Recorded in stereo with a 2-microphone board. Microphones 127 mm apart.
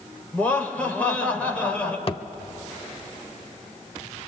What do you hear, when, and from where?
0.3 s laughter: 10° left (ahead or behind), 3.5 m
2.1 s a thud: 45° left (ahead or behind), 0.6 m